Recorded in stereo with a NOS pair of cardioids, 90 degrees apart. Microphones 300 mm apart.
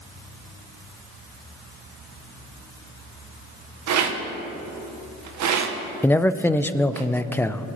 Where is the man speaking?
5° left, 0.6 m.